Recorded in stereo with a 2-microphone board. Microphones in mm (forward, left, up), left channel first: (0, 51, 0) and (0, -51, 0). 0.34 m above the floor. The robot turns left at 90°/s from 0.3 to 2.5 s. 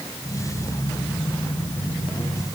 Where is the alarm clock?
No alarm clock in this recording.